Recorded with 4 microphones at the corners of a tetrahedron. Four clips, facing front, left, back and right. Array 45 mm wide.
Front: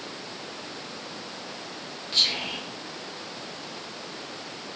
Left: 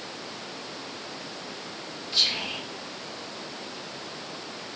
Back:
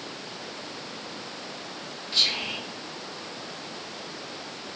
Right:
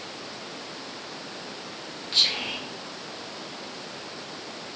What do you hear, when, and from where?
2.1 s whispering: 60° right, 1.5 m